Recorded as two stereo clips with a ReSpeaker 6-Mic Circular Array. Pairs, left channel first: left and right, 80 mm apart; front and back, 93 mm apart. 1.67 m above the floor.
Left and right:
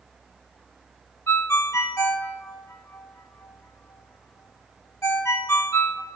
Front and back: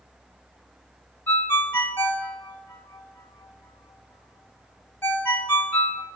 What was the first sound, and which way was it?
A ringtone, 50° left.